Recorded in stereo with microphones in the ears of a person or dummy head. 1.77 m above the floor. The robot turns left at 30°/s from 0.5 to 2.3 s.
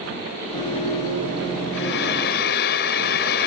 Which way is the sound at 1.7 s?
60° left (ahead or behind).